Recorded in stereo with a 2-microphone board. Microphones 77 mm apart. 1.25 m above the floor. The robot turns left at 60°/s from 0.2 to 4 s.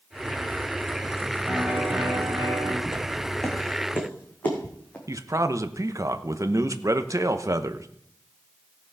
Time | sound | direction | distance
1.5 | a piano | 5° right | 4.5 m
2.9 | footsteps | 30° right (ahead or behind) | 3.5 m
5.1 | a man speaking | 45° right (ahead or behind) | 0.9 m